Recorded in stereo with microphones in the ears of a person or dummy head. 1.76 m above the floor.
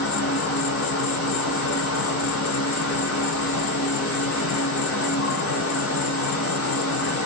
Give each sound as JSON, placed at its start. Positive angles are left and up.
{"t": 0.0, "sound": "an insect", "side_deg": 70, "distance_m": 0.7}